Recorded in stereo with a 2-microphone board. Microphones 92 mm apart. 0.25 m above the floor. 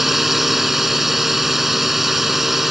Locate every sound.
0.0 s a drone: centre (ahead or behind)